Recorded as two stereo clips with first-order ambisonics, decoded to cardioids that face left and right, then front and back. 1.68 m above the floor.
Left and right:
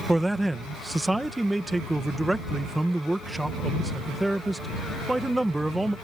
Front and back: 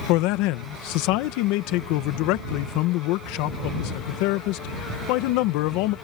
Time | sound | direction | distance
0.1 | a man speaking | 5° right | ?